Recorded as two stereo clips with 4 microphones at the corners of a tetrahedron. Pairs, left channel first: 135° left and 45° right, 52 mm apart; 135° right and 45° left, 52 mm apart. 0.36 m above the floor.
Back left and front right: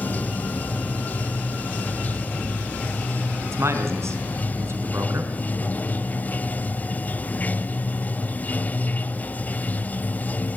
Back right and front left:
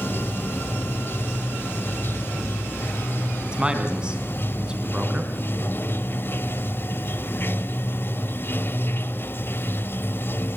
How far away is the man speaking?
About 4 m.